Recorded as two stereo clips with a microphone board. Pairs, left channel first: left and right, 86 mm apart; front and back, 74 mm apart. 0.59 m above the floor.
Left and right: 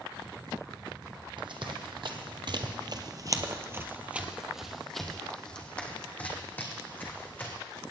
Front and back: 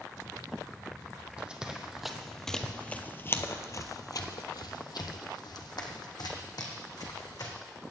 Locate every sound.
1.4 s running footsteps: 105° right, 1.6 m; by 7.5 s 25° left, 3 m